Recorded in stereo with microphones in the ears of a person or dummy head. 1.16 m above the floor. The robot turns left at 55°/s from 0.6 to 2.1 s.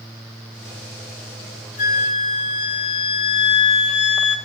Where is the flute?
50° left (ahead or behind), 4 m; by 4.4 s 35° left (ahead or behind), 4 m.